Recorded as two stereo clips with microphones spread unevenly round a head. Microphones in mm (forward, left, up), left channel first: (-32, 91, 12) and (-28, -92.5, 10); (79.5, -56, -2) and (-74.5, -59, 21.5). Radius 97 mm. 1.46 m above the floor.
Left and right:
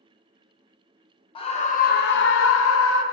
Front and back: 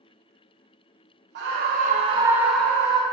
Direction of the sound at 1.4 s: 155° left.